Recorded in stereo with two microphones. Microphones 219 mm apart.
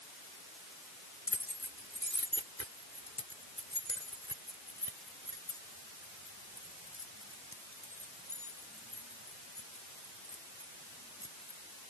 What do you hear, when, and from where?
1.3 s keys jangling: 80° left